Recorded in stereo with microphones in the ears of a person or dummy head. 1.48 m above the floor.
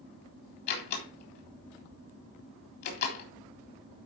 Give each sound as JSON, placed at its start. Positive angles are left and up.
{"t": 0.7, "sound": "a door slam", "side_deg": 55, "distance_m": 3.5}